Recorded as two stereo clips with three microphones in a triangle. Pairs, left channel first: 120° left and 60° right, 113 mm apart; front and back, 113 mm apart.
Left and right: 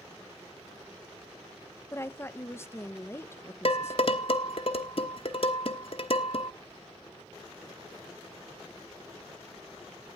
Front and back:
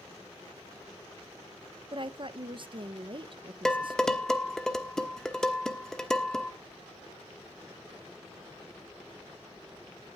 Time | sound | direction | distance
1.9 | a woman speaking | straight behind | 0.6 m
3.6 | dishes clattering | 85° left | 1.1 m